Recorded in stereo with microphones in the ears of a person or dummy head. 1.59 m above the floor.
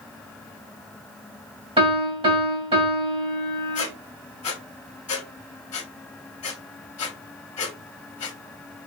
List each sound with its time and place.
1.8 s a piano: 30° right (ahead or behind), 2.5 m
3.8 s a squeak: 35° left (ahead or behind), 0.9 m